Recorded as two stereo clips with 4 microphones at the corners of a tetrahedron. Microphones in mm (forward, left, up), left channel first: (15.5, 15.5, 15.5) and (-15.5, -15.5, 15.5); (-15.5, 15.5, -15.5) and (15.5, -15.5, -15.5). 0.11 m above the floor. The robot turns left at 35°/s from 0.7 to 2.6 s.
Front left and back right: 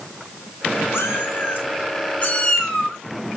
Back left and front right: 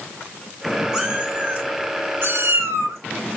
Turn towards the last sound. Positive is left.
turn(degrees=-35)